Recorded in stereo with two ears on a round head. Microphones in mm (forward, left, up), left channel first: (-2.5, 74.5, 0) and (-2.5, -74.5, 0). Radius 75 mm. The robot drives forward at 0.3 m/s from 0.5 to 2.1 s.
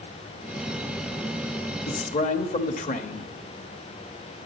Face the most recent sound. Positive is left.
turn(degrees=45)  # may be behind; listen again after turning